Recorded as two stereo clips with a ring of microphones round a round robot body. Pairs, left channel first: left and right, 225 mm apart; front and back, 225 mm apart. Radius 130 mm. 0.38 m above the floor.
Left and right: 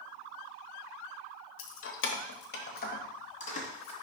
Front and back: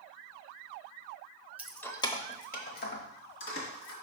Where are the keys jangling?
95° left, 0.9 m; by 3.9 s 30° left, 2.5 m.